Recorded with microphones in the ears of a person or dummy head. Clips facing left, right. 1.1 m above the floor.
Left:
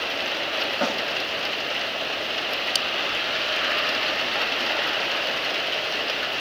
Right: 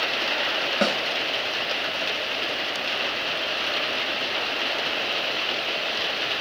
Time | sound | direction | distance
0.8 | a snare drum | 30° right (ahead or behind) | 1.2 m